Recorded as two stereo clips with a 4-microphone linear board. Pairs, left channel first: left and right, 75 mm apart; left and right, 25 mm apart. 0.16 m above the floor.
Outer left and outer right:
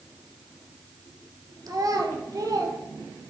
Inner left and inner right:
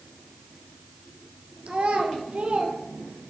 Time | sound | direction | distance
1.7 | a child speaking | 55° right (ahead or behind) | 2 m